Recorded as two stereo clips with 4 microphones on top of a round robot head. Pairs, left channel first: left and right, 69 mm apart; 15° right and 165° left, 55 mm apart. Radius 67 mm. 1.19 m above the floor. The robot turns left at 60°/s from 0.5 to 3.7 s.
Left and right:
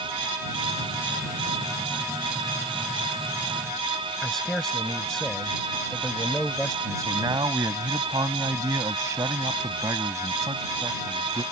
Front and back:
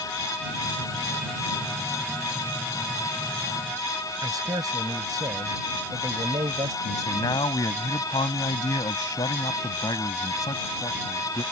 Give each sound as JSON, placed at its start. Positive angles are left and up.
{"t": 4.2, "sound": "a man speaking", "azimuth_deg": 175}
{"t": 6.8, "sound": "a man speaking", "azimuth_deg": -40}